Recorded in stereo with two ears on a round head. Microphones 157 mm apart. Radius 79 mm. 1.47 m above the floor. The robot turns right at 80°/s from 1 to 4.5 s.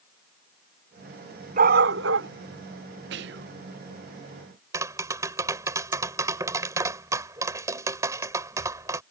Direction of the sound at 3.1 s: 100° right.